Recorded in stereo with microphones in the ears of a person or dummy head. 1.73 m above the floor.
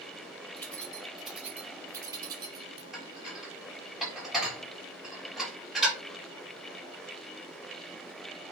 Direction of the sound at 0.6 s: 10° left (ahead or behind).